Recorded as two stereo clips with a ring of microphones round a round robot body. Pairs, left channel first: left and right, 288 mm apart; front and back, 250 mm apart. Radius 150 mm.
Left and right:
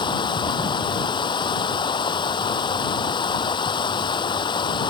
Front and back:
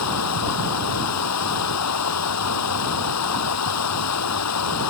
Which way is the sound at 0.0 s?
15° left.